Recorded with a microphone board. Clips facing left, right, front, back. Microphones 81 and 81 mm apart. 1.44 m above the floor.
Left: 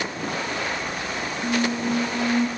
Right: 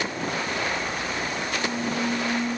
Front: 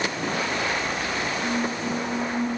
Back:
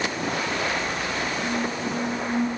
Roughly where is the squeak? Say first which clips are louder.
Left 8 dB, front 1 dB; left.